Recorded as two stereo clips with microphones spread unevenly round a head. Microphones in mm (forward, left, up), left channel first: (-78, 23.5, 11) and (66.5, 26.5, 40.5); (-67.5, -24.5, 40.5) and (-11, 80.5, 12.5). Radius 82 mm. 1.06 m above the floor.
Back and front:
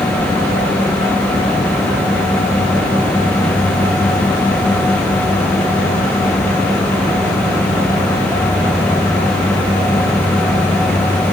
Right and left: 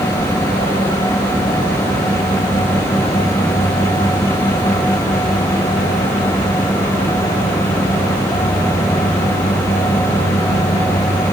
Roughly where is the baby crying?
No baby crying in this recording.